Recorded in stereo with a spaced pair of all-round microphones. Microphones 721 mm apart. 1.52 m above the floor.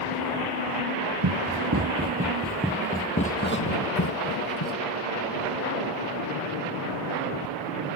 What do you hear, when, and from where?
1.2 s running footsteps: 30° right (ahead or behind); by 4.8 s 35° left (ahead or behind)